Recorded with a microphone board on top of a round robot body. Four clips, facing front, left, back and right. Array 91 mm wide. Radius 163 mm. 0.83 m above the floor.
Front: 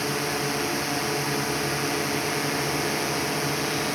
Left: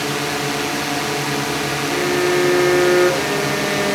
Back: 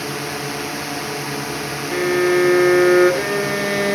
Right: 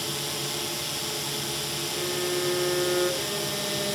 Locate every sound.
0.0 s a drone: 95° left
1.9 s a violin: 155° left